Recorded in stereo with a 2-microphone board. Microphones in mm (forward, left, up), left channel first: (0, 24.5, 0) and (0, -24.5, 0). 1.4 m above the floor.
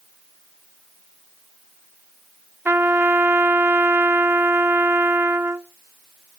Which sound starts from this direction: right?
A trumpet, at 2.6 s.